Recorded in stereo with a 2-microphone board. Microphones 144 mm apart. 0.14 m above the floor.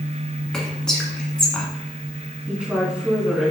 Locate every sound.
0.5 s whispering: 5° left (ahead or behind), 1.1 m
2.5 s a woman speaking: 10° right (ahead or behind), 1.5 m